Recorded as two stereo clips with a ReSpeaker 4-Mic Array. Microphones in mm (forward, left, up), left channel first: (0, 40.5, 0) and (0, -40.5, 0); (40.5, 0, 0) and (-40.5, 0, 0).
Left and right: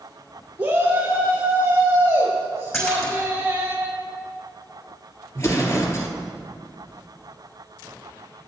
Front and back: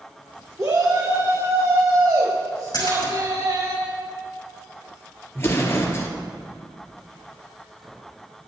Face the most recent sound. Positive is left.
turn(degrees=50)